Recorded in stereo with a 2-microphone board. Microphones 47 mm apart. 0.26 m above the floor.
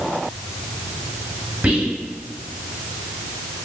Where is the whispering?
35° right (ahead or behind), 1.7 m.